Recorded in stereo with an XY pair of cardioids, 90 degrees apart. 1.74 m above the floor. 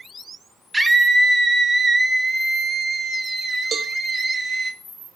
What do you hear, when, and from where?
0.7 s a scream: 20° right, 2.5 m; by 4.7 s 35° right, 4.5 m
3.7 s a cowbell: 60° right, 1.3 m